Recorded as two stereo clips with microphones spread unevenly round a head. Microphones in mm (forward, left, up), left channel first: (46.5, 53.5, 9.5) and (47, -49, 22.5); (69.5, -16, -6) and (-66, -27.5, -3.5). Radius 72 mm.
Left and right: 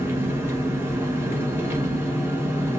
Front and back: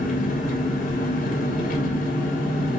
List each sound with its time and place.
0.0 s an engine running: 20° right, 1.7 m